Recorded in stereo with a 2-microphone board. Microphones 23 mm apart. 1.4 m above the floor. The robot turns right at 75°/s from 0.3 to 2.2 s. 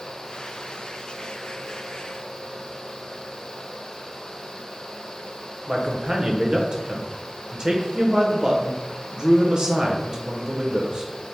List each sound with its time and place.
5.7 s a man speaking: 45° right (ahead or behind), 0.7 m